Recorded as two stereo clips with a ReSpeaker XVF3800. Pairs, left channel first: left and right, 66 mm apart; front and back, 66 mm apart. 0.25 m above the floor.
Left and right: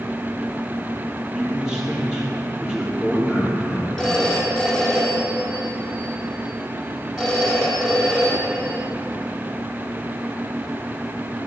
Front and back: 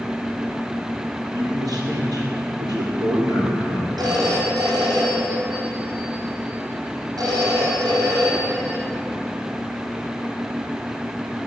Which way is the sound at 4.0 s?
175° left.